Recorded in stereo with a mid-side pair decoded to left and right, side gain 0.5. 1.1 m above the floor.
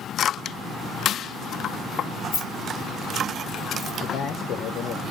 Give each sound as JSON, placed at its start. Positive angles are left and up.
{"t": 2.3, "sound": "keys jangling", "azimuth_deg": 60, "distance_m": 2.0}
{"t": 4.0, "sound": "a man speaking", "azimuth_deg": 60, "distance_m": 0.7}